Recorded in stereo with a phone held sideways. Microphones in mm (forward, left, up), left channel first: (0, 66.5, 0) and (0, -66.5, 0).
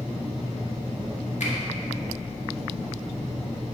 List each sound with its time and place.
1.4 s a finger snap: 70° left (ahead or behind), 1.5 m